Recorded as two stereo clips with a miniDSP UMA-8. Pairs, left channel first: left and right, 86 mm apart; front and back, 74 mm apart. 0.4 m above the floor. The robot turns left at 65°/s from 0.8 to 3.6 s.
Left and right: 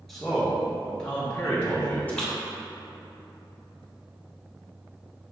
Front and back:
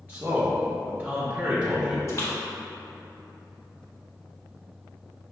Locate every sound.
0.1 s a man speaking: 175° left, 0.8 m; by 2.0 s 100° left, 0.8 m
2.1 s a splash: 30° left, 1.0 m; by 3.8 s 70° right, 1.0 m